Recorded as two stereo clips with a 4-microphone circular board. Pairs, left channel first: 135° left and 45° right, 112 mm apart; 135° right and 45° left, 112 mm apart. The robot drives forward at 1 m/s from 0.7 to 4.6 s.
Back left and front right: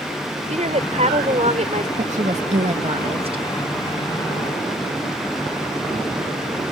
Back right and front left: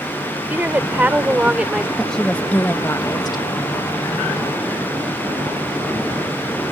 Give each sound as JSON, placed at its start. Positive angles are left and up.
{"t": 0.5, "sound": "a woman speaking", "azimuth_deg": -30}
{"t": 2.0, "sound": "a woman speaking", "azimuth_deg": -50}